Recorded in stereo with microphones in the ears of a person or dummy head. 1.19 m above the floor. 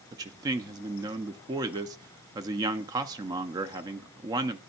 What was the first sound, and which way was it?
A man speaking, 20° right (ahead or behind).